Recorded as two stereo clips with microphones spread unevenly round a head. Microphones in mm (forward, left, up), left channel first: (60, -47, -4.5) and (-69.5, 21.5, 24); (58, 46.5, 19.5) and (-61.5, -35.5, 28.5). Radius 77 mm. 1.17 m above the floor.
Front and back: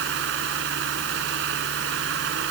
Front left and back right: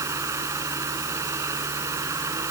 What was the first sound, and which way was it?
A fan, 145° left.